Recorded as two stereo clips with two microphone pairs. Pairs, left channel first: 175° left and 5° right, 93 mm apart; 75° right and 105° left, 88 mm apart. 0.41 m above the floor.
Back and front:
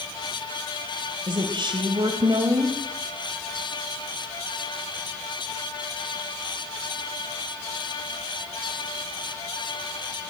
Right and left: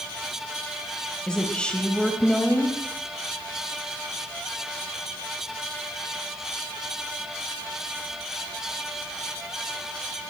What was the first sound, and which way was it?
A woman speaking, 5° left.